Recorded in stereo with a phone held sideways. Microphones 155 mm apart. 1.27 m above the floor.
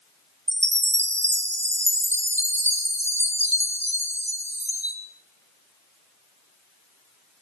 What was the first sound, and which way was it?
A chime, 45° right (ahead or behind).